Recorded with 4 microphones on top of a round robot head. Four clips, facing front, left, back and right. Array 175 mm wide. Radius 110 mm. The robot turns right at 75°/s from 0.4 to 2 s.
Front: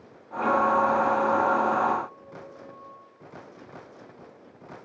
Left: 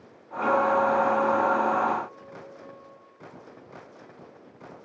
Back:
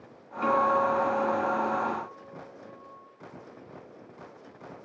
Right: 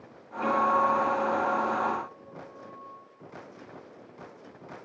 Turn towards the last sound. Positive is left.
turn(degrees=-70)